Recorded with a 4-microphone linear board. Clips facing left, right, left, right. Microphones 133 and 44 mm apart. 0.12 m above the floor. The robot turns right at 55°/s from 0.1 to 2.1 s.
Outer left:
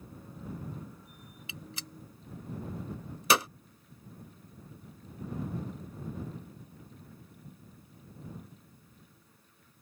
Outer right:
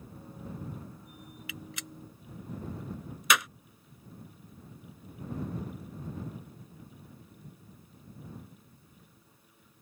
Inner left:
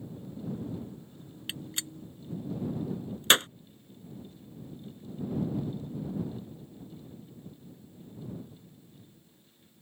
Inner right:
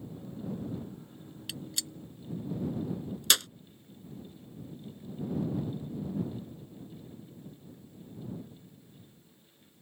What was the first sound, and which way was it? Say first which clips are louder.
A gunshot: outer right 1 dB, inner left 1 dB; 30° left (ahead or behind).